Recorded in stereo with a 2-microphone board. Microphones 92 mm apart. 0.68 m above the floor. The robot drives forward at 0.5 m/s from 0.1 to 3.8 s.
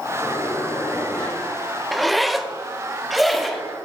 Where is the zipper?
Centre (ahead or behind), 0.5 m.